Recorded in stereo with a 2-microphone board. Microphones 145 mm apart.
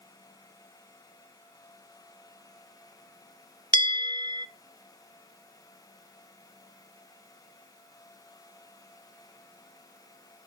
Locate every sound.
3.7 s a bell: 35° right (ahead or behind), 0.6 m